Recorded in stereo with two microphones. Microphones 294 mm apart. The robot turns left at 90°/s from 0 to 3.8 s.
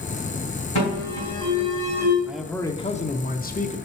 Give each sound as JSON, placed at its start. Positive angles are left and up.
{"t": 0.8, "sound": "an alarm", "azimuth_deg": 70, "distance_m": 4.0}
{"t": 2.2, "sound": "a man speaking", "side_deg": -5, "distance_m": 0.7}